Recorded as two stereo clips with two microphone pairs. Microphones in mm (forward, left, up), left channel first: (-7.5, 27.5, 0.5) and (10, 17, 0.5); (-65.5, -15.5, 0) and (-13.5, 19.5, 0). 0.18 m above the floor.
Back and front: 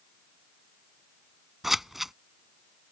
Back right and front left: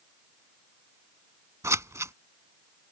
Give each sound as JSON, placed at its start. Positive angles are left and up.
{"t": 1.6, "sound": "scissors", "azimuth_deg": 45}